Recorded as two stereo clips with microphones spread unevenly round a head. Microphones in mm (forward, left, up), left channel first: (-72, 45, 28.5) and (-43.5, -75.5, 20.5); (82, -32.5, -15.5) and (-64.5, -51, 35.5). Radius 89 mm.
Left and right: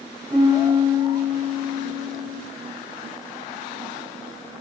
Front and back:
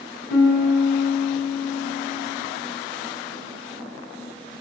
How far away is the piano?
About 0.7 m.